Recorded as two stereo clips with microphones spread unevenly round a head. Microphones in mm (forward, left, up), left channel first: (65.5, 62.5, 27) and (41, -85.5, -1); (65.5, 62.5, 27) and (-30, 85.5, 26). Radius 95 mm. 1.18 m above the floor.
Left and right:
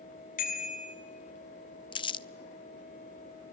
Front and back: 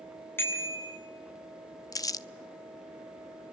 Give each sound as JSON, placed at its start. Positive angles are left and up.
{"t": 0.4, "sound": "a bicycle bell", "azimuth_deg": 50, "distance_m": 7.5}
{"t": 1.9, "sound": "crumpling", "azimuth_deg": 35, "distance_m": 0.9}